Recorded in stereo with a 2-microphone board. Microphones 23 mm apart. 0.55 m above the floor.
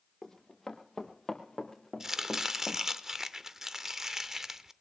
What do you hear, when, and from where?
0.2 s running footsteps: 20° left (ahead or behind), 3.5 m; by 2.8 s 5° left (ahead or behind), 2.0 m
2.0 s chopping: 20° right (ahead or behind), 0.6 m